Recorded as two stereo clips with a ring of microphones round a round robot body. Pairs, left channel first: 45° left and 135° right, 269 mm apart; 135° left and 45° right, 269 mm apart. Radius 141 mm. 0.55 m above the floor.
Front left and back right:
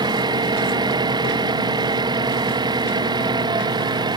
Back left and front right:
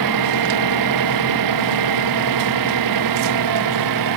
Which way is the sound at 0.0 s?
60° right.